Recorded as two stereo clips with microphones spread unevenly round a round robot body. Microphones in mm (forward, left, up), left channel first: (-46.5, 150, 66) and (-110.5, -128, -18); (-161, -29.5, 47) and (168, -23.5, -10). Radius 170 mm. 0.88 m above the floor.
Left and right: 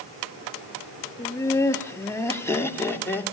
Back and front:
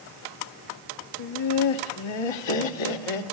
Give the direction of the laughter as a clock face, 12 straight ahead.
7 o'clock.